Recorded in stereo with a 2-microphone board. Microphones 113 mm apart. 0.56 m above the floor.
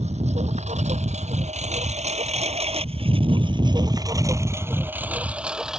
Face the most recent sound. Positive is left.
turn(degrees=-5)  # may be behind; listen again after turning